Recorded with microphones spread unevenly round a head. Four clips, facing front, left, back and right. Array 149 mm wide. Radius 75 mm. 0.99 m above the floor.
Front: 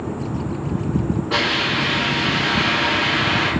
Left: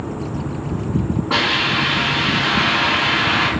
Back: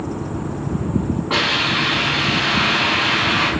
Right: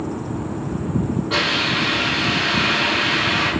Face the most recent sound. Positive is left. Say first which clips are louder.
# left 2 dB, back 1 dB
turn(degrees=140)